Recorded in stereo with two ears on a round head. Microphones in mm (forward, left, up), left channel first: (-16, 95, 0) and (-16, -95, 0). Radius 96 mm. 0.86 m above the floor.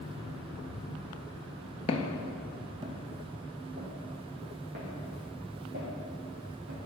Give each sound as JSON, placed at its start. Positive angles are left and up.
{"t": 1.9, "sound": "footsteps", "side_deg": 30, "distance_m": 0.9}